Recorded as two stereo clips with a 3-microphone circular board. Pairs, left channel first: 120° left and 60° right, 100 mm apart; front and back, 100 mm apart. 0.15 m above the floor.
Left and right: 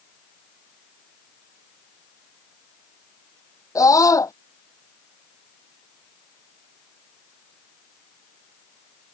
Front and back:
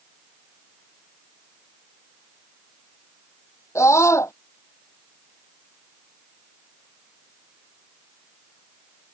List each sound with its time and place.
3.8 s a scream: 60° left